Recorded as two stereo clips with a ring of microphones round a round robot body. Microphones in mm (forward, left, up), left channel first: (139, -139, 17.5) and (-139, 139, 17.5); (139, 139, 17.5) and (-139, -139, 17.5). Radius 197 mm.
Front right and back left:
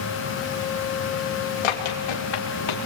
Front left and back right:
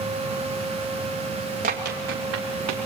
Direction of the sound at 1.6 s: 65° right.